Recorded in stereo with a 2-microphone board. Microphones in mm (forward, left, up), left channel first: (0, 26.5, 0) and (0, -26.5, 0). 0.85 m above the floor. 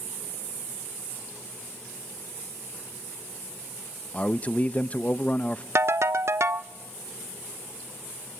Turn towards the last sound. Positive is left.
turn(degrees=-60)  # may be behind; listen again after turning